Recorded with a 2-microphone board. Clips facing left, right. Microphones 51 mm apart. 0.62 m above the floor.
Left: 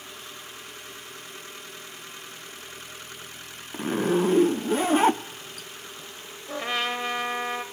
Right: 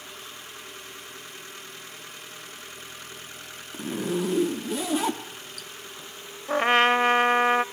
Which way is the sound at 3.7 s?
40° left (ahead or behind).